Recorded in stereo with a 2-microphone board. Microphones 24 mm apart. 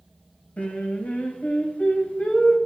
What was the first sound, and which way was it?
Singing, 65° left (ahead or behind).